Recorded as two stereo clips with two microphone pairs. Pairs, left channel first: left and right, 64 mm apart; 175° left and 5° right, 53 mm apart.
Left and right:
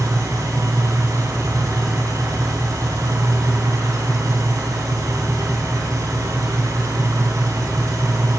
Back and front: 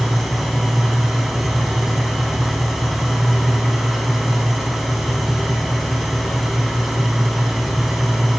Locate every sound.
0.0 s an engine running: 90° right, 3 m